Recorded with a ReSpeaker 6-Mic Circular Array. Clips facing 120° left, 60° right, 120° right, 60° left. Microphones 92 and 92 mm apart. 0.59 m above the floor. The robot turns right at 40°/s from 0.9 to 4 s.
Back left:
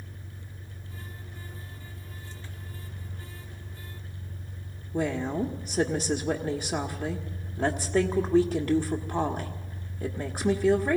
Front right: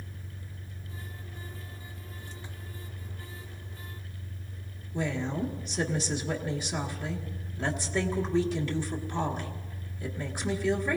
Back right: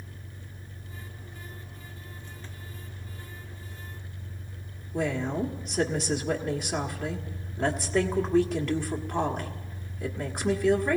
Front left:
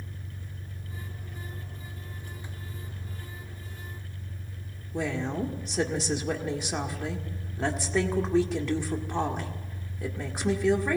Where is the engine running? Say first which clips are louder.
Even, front left 3 dB; 20° left, 4.5 m; by 11.0 s 145° left, 4.5 m.